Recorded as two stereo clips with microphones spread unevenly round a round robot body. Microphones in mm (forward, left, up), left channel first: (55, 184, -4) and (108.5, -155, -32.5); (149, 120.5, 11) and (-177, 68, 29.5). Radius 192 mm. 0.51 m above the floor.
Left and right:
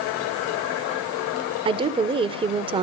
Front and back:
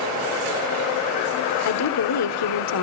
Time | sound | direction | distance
1.6 | a woman speaking | 10° right | 1.4 m